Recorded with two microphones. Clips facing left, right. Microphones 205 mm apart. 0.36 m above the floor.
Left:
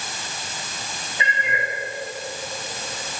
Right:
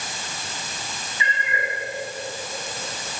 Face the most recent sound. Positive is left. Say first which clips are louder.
# left 2 dB
turn(degrees=75)  # may be behind; listen again after turning